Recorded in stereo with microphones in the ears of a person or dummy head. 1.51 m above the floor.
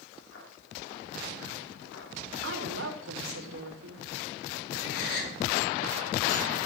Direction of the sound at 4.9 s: 55° left (ahead or behind).